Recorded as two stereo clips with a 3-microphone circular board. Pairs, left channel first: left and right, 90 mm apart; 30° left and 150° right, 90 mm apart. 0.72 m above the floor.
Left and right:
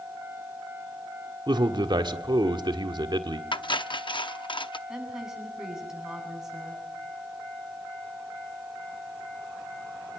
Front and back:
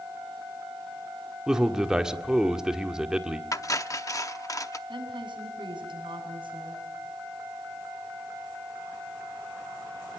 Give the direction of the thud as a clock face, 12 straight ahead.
I don't hear a thud.